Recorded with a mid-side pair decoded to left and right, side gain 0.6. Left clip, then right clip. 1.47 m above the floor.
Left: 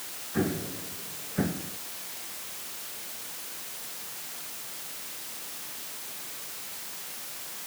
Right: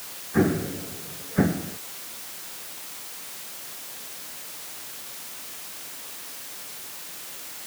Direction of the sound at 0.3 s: 35° right.